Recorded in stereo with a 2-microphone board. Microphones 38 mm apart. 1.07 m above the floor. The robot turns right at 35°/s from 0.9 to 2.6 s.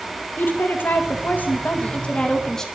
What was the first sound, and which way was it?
A woman speaking, 100° left.